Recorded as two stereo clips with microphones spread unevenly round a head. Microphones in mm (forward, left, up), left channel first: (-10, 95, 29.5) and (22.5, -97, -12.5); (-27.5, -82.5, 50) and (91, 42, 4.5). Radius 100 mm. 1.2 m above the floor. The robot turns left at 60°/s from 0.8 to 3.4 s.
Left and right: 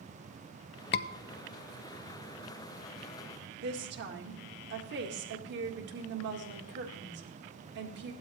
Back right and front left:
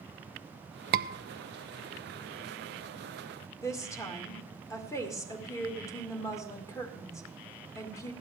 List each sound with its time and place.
0.9 s a scream: 60° left, 0.8 m; by 1.1 s 50° left, 0.8 m
3.6 s a woman speaking: 55° right, 2 m